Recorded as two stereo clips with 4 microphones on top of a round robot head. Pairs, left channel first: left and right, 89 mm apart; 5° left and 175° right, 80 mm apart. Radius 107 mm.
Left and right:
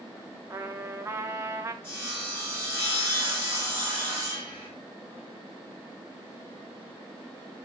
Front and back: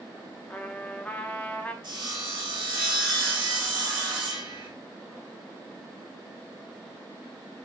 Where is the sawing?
160° left, 1.8 m.